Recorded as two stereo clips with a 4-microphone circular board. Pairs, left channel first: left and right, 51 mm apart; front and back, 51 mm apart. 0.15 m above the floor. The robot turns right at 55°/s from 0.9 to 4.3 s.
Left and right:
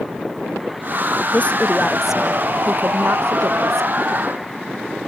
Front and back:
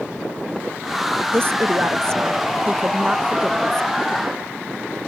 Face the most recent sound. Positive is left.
turn(degrees=-50)